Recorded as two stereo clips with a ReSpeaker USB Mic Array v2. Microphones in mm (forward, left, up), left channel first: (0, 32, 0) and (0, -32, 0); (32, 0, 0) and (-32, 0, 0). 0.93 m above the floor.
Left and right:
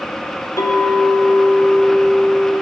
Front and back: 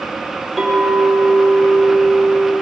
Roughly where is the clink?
Left.